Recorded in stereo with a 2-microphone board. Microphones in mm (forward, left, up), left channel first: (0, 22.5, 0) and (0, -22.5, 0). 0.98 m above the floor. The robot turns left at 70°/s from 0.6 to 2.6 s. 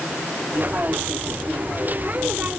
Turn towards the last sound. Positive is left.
No sound to turn to.